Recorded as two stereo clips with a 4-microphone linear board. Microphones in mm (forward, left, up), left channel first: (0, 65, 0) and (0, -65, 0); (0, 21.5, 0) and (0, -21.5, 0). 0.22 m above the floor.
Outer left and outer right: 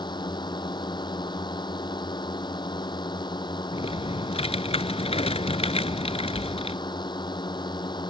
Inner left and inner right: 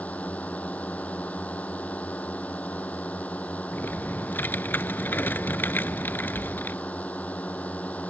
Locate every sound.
0.0 s a drone: 35° left (ahead or behind)
3.7 s typing on a keyboard: 50° left (ahead or behind)